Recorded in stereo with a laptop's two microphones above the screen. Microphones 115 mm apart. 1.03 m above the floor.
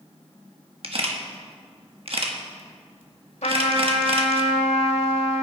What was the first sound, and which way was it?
A camera shutter, 55° right (ahead or behind).